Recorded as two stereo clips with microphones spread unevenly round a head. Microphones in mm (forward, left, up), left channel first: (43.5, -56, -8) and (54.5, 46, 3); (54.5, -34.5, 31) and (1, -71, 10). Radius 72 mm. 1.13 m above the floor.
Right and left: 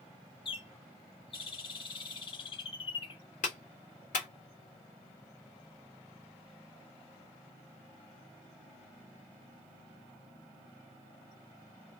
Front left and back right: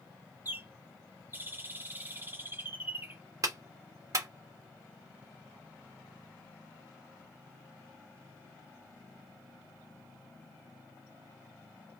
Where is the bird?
80° right, 0.9 m.